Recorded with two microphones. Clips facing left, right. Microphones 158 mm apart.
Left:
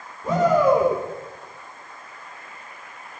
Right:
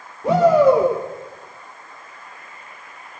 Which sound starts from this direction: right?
A shout, at 0.2 s.